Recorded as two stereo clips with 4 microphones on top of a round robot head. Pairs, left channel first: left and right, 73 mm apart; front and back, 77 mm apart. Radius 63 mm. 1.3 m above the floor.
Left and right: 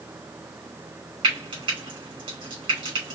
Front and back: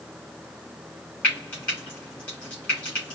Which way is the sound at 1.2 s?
80° right.